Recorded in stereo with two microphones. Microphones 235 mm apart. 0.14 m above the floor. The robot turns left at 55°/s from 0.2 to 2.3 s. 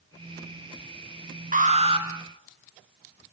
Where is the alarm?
120° right, 3 m; by 2.1 s 150° right, 3 m.